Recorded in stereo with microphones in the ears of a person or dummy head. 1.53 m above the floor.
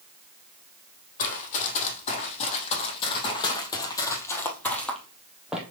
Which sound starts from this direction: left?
Running footsteps, at 1.2 s.